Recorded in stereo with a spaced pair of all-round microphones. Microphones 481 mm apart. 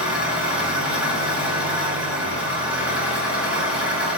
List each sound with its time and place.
0.0 s an engine running: 5° right (ahead or behind), 0.8 m